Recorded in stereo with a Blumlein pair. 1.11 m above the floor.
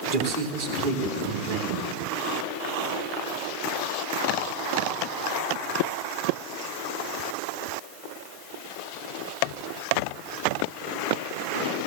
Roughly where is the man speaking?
Ahead right.